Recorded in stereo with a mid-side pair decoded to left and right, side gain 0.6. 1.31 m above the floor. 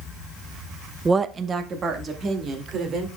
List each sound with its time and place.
1.1 s a woman speaking: 20° right, 0.6 m; by 3.1 s 45° right, 3.5 m